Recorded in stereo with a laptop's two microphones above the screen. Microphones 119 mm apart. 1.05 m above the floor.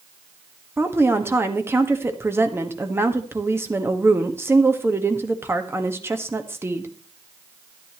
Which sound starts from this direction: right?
A woman speaking, at 0.8 s.